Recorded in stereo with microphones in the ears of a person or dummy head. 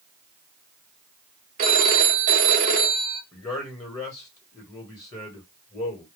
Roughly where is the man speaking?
Left.